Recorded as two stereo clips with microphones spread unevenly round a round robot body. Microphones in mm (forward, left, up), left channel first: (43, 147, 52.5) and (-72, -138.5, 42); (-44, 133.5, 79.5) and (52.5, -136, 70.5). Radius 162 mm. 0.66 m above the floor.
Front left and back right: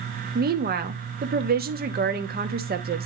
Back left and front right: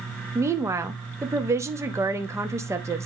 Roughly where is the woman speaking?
Behind right.